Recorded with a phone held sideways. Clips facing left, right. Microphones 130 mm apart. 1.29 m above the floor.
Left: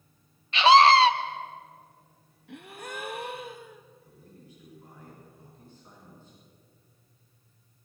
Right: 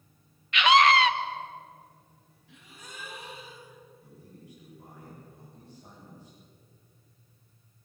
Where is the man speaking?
85° right, 10 m.